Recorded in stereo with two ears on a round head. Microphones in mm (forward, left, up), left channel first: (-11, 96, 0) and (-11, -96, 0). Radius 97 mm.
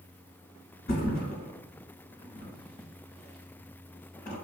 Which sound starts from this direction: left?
A thud, at 0.9 s.